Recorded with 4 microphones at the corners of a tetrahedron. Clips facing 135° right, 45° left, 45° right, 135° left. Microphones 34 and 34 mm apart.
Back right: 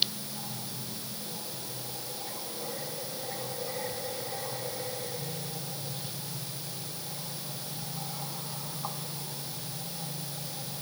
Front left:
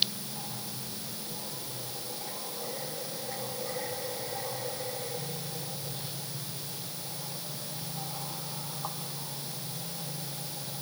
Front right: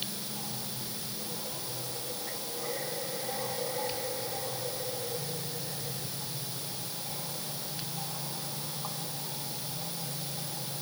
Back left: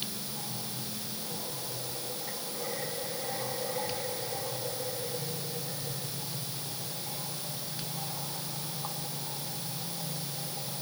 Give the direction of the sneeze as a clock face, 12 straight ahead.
No sneeze in this recording.